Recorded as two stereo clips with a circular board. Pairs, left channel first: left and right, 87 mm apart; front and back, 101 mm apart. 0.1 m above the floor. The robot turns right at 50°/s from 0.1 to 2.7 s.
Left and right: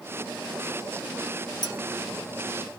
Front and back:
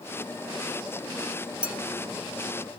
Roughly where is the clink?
Left.